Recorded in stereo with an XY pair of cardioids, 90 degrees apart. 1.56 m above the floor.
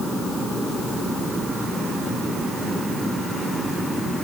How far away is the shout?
No shout in this recording.